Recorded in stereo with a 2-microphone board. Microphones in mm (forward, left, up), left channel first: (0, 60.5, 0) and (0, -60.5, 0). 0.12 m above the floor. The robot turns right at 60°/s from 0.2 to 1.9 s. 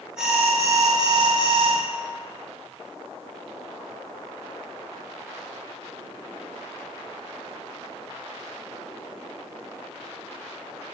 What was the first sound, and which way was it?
An alarm, 175° right.